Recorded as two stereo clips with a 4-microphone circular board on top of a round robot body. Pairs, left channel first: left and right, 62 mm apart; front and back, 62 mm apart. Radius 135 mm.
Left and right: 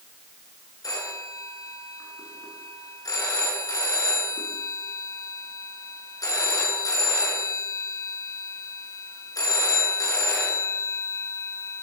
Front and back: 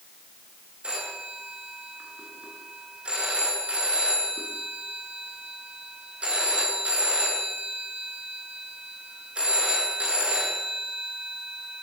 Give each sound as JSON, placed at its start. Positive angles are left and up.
{"t": 0.8, "sound": "a phone ringing", "azimuth_deg": 110, "distance_m": 7.5}